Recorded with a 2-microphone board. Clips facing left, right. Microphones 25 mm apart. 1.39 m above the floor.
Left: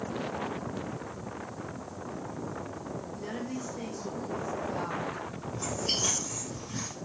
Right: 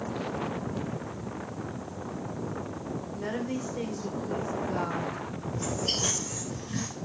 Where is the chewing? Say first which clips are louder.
Right 1 dB; 55° right (ahead or behind), 2 m.